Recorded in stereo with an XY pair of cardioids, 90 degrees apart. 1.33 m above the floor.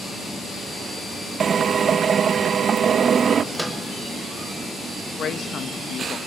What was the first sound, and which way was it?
A drill, 55° right.